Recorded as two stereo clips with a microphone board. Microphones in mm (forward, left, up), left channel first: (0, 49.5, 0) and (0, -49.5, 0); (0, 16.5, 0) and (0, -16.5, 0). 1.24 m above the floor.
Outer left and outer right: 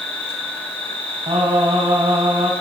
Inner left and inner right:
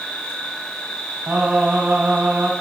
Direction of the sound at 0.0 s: 75° left (ahead or behind).